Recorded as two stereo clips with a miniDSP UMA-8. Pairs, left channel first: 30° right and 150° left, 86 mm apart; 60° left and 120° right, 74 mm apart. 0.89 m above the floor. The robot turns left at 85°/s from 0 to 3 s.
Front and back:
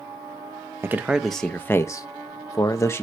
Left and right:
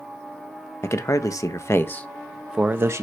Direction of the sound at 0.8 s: 100° left.